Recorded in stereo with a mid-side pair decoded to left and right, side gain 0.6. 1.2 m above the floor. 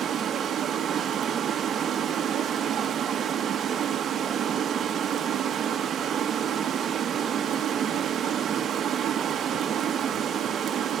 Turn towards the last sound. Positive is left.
turn(degrees=-45)